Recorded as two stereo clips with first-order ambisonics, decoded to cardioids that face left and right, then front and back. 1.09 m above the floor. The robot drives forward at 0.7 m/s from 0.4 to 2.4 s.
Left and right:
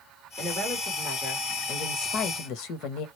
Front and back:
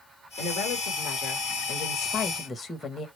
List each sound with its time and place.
0.4 s a woman speaking: 20° left, 1.6 m; by 3.1 s 80° left, 0.6 m